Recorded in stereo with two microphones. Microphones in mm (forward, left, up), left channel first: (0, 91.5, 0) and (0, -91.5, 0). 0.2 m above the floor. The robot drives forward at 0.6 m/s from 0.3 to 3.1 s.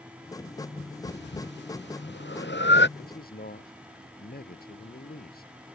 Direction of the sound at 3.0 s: 55° left (ahead or behind).